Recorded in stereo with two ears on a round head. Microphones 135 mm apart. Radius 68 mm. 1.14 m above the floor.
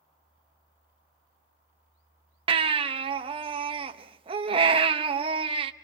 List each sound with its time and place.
2.5 s a baby crying: 35° right (ahead or behind), 0.9 m